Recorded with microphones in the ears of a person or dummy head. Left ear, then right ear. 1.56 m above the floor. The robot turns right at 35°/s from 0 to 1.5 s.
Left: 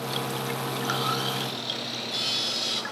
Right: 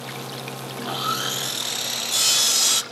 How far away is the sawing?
About 0.6 m.